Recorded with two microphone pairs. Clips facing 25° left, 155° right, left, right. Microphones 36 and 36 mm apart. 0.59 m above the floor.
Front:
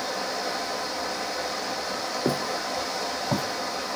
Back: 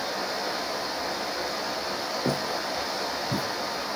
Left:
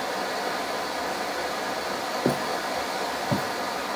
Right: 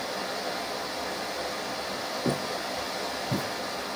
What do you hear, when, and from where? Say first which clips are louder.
0.0 s running water: even, left 4 dB; 125° left, 2.5 m
2.2 s footsteps: front 1 dB, left 4 dB; 100° left, 1.9 m; by 3.5 s 60° left, 1.8 m